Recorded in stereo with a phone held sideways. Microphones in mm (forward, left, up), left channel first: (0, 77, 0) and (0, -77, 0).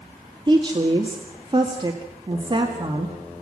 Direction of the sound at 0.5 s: 30° right (ahead or behind).